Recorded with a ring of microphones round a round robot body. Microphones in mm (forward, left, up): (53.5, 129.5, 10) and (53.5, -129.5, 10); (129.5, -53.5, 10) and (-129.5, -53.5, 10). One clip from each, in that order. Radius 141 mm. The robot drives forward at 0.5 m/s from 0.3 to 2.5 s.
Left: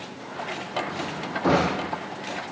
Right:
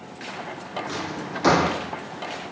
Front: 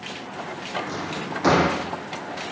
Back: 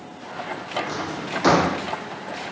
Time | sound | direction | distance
0.9 | a drawer | 115° right | 4.5 m